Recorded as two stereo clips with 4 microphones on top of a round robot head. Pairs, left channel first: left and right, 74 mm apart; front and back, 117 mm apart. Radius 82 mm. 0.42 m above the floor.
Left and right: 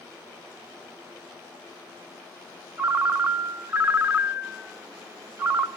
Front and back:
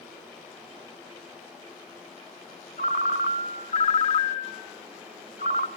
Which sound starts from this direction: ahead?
A ringtone, at 2.8 s.